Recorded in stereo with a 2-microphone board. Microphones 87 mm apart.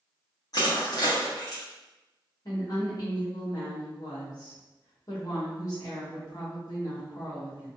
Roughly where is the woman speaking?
Left.